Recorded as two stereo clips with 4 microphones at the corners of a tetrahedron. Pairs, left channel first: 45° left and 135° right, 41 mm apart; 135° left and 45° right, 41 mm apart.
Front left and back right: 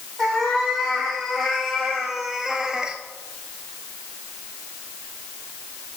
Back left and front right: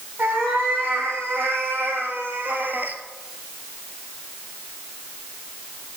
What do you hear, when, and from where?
0.2 s a cat meowing: 45° right, 3 m; by 3.0 s 65° right, 0.7 m